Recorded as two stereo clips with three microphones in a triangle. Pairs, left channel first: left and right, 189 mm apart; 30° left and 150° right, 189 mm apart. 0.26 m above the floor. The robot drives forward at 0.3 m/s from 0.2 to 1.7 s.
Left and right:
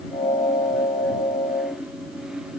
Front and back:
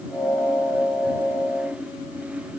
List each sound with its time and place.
Only background noise.